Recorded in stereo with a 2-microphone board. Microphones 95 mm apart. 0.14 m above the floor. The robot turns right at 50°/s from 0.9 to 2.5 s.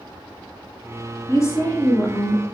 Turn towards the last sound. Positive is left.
turn(degrees=160)